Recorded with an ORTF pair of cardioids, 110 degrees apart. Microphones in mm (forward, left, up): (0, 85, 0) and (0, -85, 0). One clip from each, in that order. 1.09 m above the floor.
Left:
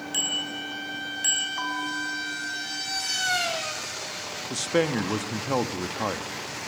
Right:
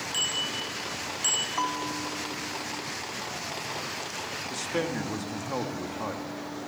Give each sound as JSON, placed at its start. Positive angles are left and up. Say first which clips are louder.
{"t": 0.1, "sound": "a bicycle bell", "louder": "left 1 dB", "azimuth_deg": 15, "distance_m": 6.5}
{"t": 1.6, "sound": "a bell", "louder": "left 1 dB", "azimuth_deg": -35, "distance_m": 4.0}
{"t": 4.5, "sound": "a man speaking", "louder": "left 7 dB", "azimuth_deg": 35, "distance_m": 1.5}